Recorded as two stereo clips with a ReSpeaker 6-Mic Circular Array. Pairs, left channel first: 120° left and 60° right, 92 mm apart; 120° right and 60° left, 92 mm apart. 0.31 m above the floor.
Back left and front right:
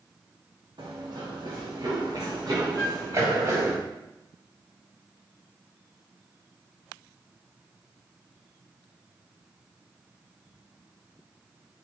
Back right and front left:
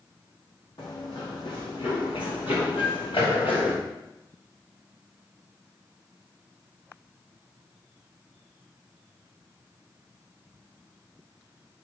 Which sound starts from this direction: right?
Running footsteps, at 0.8 s.